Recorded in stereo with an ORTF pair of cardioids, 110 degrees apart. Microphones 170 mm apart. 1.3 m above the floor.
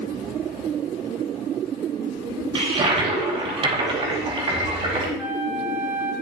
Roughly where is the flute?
Ahead.